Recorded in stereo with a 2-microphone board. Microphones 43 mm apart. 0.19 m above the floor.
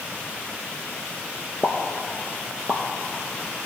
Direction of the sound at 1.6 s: 20° right (ahead or behind).